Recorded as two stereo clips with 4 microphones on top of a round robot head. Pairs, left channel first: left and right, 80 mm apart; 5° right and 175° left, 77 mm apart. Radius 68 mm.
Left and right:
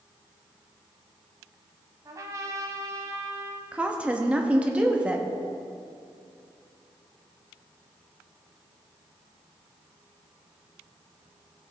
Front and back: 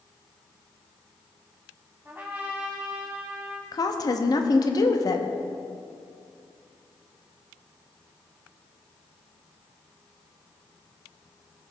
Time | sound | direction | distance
2.0 | a trumpet | 115° right | 0.6 m
3.7 | a woman speaking | 15° right | 0.9 m